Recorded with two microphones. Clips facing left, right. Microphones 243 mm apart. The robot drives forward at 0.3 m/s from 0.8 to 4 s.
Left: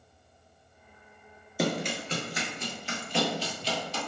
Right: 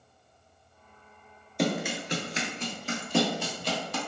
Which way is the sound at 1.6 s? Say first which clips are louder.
Right 1 dB; 5° left (ahead or behind).